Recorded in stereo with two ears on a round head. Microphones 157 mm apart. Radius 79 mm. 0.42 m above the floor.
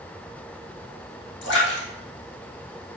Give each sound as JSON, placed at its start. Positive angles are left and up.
{"t": 1.4, "sound": "a splash", "side_deg": 75, "distance_m": 4.0}